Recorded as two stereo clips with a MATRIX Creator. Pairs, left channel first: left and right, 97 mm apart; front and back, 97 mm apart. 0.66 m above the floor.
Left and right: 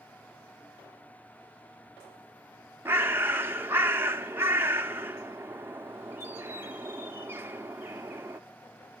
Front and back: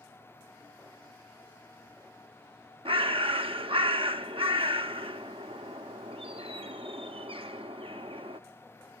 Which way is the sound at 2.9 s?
155° right.